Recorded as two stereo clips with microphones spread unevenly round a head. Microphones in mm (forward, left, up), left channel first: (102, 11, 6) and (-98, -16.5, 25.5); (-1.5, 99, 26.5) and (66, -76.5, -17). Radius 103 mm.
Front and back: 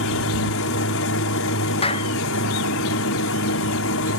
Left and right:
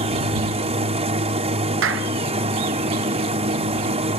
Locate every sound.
0.0 s a machine running: 10° right
1.8 s a clap: 55° right